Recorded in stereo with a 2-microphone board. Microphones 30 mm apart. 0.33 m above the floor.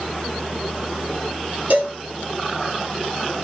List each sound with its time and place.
1.7 s a cowbell: 55° right (ahead or behind), 2.0 m